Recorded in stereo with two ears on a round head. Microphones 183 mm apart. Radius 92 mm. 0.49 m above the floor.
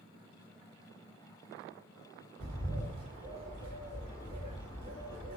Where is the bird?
30° right (ahead or behind), 1.8 m.